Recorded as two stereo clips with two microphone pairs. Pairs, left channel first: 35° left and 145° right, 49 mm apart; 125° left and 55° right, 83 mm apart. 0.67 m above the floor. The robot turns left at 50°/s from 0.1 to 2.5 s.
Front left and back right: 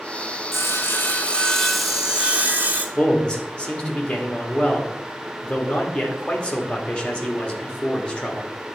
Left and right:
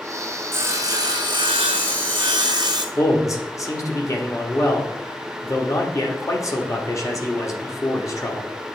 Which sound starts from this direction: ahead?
Sawing, at 0.5 s.